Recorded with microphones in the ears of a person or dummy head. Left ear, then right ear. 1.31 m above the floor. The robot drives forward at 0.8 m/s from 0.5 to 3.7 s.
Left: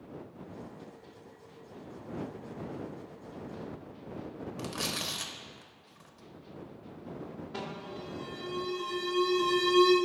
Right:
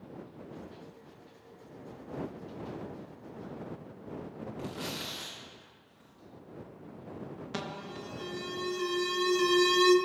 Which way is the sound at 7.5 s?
65° right (ahead or behind).